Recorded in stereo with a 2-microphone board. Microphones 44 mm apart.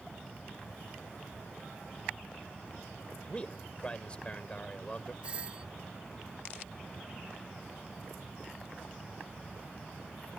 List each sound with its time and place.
3.3 s a man speaking: 25° left (ahead or behind)
5.2 s a doorbell: 25° right (ahead or behind)